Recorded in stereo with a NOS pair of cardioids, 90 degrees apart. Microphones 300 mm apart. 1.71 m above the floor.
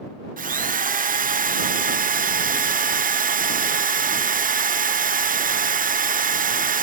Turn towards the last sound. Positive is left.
turn(degrees=-30)